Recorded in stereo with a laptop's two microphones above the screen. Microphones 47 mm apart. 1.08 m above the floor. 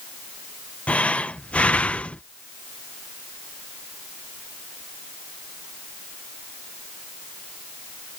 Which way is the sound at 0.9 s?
25° left (ahead or behind).